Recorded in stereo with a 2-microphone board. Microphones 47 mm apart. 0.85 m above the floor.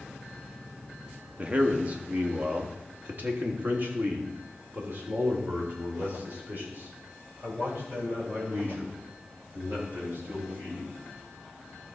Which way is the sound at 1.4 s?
30° right (ahead or behind).